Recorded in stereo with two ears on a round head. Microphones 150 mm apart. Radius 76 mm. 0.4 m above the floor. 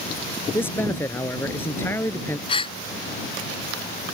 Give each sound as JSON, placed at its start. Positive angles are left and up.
{"t": 0.5, "sound": "a man speaking", "side_deg": 15}
{"t": 2.5, "sound": "a gasp", "side_deg": 30}